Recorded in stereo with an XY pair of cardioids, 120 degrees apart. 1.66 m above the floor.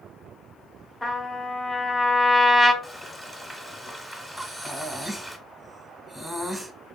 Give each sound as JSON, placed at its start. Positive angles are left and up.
{"t": 1.0, "sound": "a trumpet", "azimuth_deg": 15, "distance_m": 0.7}
{"t": 2.8, "sound": "frying", "azimuth_deg": -5, "distance_m": 0.7}
{"t": 4.4, "sound": "breathing", "azimuth_deg": -5, "distance_m": 0.8}